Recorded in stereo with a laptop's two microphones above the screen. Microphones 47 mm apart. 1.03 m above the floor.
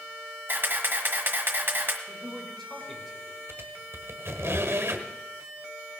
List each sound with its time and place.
0.5 s a camera shutter: 50° right (ahead or behind), 1.5 m
2.1 s a man speaking: 5° left (ahead or behind), 5 m
3.5 s a squeak: 70° right (ahead or behind), 1.5 m